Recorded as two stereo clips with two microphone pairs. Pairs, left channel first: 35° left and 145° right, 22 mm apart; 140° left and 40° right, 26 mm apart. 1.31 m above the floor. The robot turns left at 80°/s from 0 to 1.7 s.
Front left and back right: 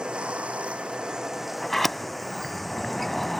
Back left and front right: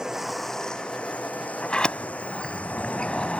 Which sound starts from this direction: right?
Running water, at 0.0 s.